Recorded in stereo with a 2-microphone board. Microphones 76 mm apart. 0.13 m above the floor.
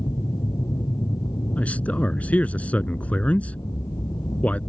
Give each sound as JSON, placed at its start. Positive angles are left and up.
{"t": 0.0, "sound": "an aircraft", "side_deg": 55}
{"t": 1.6, "sound": "a man speaking", "side_deg": 20}